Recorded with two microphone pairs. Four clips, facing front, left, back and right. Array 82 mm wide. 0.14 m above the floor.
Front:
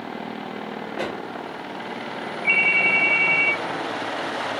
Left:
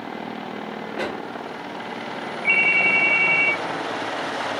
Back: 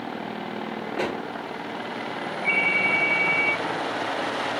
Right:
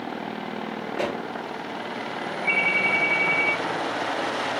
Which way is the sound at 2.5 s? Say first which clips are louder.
Left 3 dB, front 3 dB; 60° left.